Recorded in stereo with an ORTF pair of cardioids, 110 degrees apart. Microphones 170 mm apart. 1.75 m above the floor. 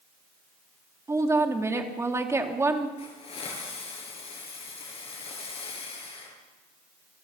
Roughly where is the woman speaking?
Ahead.